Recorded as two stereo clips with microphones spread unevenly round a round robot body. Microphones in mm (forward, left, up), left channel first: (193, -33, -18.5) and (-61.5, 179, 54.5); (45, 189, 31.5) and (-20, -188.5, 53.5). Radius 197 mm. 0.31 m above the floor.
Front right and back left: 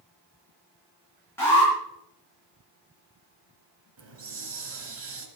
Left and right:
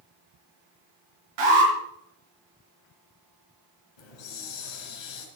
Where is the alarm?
120° right, 6 m.